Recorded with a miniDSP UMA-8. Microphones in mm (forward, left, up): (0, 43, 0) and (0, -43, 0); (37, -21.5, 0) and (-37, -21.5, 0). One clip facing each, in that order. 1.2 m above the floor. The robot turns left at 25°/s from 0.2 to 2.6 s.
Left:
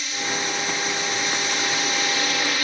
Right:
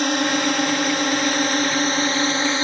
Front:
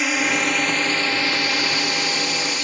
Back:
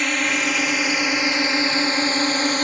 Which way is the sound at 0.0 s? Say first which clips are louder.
Right 9 dB, front 1 dB; 85° right.